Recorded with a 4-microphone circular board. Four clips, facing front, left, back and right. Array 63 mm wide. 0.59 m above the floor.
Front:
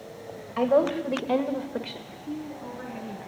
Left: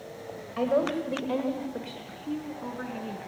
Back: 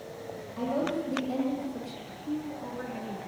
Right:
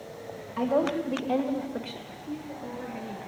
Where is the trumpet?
I don't hear a trumpet.